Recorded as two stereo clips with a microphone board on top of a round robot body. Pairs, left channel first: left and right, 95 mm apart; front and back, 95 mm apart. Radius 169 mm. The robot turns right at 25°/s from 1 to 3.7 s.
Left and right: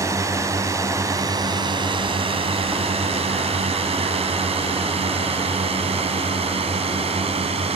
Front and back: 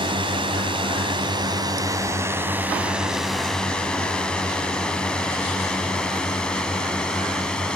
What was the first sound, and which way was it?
A drone, 145° right.